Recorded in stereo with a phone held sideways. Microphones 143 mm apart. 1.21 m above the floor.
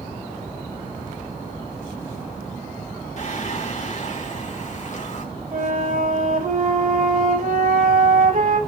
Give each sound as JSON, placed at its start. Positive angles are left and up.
{"t": 3.2, "sound": "singing", "side_deg": 50, "distance_m": 2.5}
{"t": 5.5, "sound": "a flute", "side_deg": -70, "distance_m": 6.0}